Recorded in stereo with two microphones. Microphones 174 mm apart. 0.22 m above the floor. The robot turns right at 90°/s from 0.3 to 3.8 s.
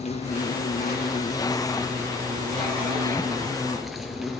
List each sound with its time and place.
0.0 s an insect: 45° left, 3 m; by 4.4 s straight ahead, 3 m